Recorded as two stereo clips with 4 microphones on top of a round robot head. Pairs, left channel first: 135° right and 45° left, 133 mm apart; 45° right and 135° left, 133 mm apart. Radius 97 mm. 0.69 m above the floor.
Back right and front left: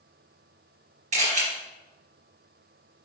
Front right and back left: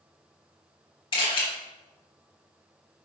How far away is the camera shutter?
About 4 m.